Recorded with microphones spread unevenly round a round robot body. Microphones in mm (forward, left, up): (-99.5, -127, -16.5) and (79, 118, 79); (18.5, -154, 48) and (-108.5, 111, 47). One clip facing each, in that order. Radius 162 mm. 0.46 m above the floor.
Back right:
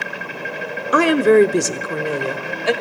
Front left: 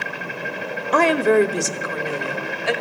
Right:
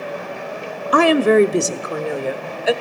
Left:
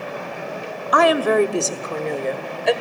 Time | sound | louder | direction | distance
0.9 | a woman speaking | back right 4 dB, right 4 dB | 85° right | 0.8 m